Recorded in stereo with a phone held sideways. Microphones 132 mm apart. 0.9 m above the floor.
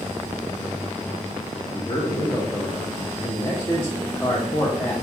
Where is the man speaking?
20° left (ahead or behind), 0.5 m.